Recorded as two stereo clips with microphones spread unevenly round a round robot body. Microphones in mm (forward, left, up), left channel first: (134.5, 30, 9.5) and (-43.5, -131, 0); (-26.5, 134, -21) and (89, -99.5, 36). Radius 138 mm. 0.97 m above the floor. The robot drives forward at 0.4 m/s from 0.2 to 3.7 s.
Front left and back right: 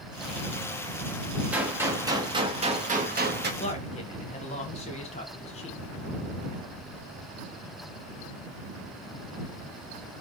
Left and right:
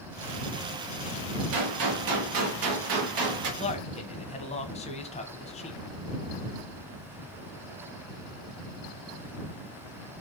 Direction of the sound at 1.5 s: 55° right.